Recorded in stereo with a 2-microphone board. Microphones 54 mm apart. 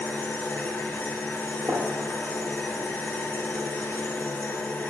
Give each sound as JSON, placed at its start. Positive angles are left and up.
{"t": 0.0, "sound": "an engine running", "side_deg": 45, "distance_m": 0.9}
{"t": 1.7, "sound": "a gunshot", "side_deg": -50, "distance_m": 2.0}